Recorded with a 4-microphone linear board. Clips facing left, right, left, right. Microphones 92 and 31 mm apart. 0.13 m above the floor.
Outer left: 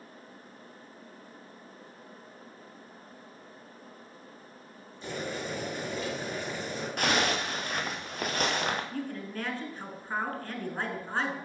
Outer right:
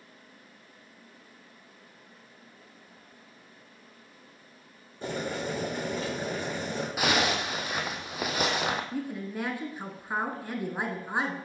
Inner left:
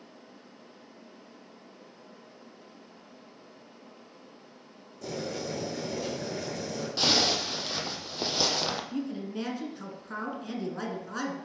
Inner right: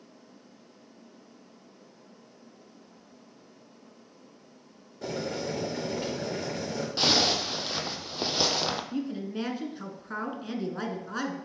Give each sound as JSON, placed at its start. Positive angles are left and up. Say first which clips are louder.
{"t": 5.0, "sound": "boiling", "louder": "outer right 3 dB, inner right 2 dB", "side_deg": -45, "distance_m": 4.0}
{"t": 7.0, "sound": "a zipper", "louder": "outer right 1 dB, inner right 1 dB", "side_deg": -5, "distance_m": 0.7}
{"t": 8.9, "sound": "a woman speaking", "louder": "outer right 2 dB, inner right 1 dB", "side_deg": -15, "distance_m": 1.2}